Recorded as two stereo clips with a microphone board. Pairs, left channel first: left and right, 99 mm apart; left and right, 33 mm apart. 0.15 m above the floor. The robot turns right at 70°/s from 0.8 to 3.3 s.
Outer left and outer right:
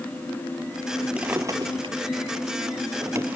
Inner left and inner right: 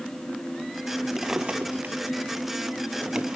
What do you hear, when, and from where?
1.2 s a drawer: 10° right (ahead or behind), 1.0 m; by 3.4 s 20° right (ahead or behind), 1.0 m